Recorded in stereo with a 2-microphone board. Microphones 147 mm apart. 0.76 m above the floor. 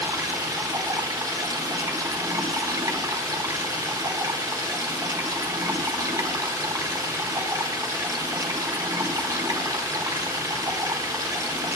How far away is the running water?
About 1.5 m.